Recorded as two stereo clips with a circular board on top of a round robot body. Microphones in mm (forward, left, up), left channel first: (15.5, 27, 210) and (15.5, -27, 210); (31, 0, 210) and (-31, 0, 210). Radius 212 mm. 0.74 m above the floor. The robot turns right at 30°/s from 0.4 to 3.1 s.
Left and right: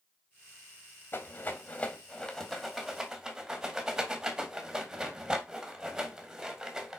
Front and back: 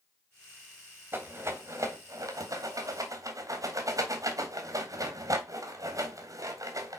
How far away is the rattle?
About 2 m.